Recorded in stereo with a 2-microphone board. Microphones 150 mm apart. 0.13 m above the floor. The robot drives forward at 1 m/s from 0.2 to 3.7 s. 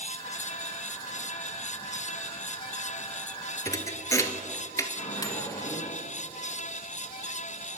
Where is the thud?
20° left (ahead or behind), 0.6 m.